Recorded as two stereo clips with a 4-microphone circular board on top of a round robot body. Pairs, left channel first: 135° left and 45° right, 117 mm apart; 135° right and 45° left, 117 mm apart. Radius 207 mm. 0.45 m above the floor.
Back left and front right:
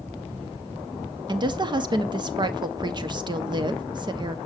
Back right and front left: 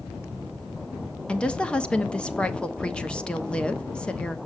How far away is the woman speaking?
About 1.2 m.